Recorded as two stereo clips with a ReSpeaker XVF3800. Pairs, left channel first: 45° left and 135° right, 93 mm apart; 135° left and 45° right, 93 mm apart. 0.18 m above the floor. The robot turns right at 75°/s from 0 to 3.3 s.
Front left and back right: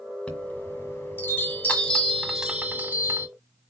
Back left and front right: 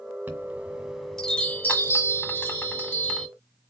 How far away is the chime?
About 1.6 m.